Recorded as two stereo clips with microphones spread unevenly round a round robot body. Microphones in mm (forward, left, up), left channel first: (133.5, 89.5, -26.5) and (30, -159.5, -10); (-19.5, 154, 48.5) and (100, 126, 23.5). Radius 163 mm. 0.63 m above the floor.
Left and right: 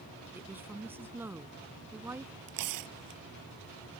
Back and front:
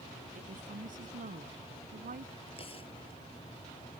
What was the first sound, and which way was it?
A woman speaking, 30° right.